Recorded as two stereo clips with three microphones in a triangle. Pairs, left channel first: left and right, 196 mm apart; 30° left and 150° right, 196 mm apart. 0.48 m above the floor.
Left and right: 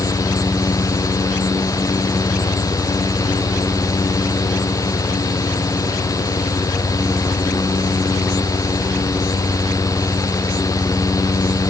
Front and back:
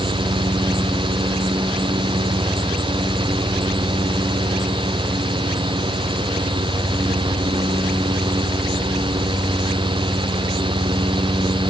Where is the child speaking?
No child speaking in this recording.